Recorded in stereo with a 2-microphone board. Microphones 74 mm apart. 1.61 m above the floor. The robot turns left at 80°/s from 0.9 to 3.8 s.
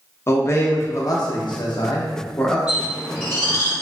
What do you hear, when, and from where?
0.3 s a man speaking: 145° left, 0.6 m; by 2.6 s 10° left, 0.6 m
2.7 s a bird: 10° right (ahead or behind), 1.4 m; by 3.7 s 45° left (ahead or behind), 1.4 m